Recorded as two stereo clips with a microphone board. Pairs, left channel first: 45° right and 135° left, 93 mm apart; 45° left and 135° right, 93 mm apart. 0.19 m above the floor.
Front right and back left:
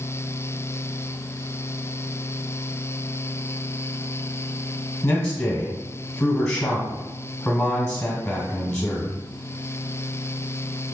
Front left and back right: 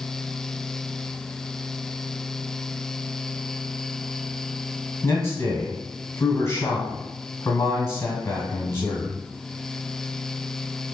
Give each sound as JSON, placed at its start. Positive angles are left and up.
{"t": 5.0, "sound": "a man speaking", "azimuth_deg": 20, "distance_m": 1.4}